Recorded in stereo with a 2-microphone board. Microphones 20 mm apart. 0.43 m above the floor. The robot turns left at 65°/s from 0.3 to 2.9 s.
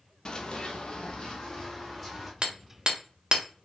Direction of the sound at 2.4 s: 60° right (ahead or behind).